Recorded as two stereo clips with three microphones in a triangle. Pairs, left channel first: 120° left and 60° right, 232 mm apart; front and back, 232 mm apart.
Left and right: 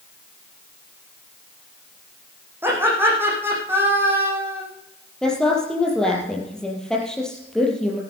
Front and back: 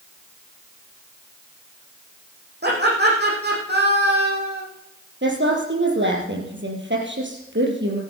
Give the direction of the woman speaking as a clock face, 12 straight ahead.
5 o'clock.